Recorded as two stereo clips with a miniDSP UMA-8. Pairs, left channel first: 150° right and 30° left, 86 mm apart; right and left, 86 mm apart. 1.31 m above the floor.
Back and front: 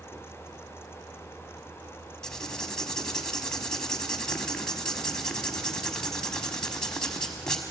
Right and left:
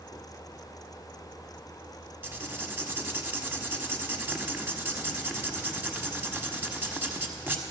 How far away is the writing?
About 1.4 m.